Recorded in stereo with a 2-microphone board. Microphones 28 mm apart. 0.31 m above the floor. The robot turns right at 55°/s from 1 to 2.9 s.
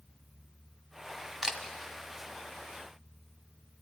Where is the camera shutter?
20° right (ahead or behind), 1.4 m; by 1.6 s 30° right (ahead or behind), 1.4 m.